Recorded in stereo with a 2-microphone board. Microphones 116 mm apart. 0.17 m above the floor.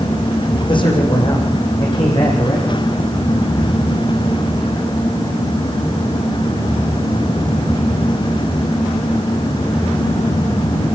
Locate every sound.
0.7 s a man speaking: 45° left (ahead or behind), 9 m